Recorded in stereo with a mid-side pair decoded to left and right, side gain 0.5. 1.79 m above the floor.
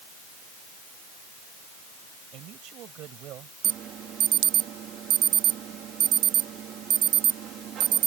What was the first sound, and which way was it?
A man speaking, 70° right.